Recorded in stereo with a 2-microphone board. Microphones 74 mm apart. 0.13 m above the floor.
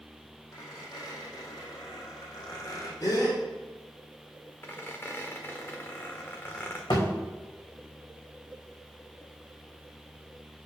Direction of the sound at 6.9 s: 80° left.